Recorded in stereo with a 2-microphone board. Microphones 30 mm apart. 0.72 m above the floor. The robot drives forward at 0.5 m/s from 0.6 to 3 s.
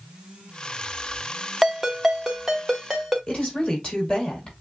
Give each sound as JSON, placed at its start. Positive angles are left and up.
{"t": 1.6, "sound": "a ringtone", "side_deg": -15, "distance_m": 0.9}
{"t": 3.3, "sound": "a woman speaking", "side_deg": 35, "distance_m": 4.0}